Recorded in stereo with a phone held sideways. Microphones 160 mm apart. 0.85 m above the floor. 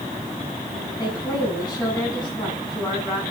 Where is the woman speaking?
25° left (ahead or behind), 7.5 m.